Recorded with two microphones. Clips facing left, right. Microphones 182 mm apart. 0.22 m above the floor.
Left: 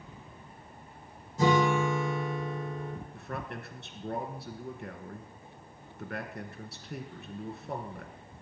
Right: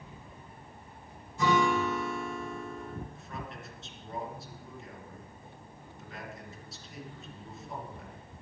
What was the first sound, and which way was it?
A guitar, 40° left (ahead or behind).